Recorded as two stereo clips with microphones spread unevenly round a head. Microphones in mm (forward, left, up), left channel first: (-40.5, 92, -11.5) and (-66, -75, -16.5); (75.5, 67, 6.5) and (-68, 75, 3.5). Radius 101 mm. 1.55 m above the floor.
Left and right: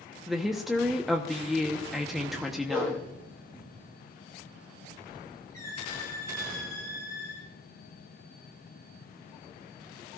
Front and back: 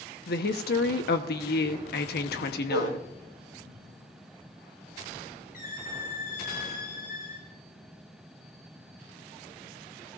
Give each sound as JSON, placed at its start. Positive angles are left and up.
{"t": 0.3, "sound": "a woman speaking", "azimuth_deg": -10, "distance_m": 1.0}
{"t": 2.7, "sound": "a whoosh", "azimuth_deg": -20, "distance_m": 8.5}
{"t": 5.5, "sound": "a squeak", "azimuth_deg": 5, "distance_m": 4.0}